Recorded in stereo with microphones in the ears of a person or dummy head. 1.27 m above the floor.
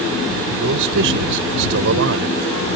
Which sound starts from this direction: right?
A man speaking, at 0.6 s.